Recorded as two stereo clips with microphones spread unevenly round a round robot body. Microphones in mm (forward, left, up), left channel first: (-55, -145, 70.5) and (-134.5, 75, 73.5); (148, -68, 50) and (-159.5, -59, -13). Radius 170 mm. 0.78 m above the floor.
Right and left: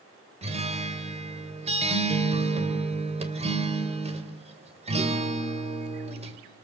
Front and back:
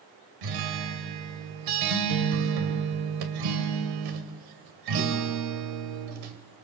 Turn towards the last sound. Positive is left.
turn(degrees=175)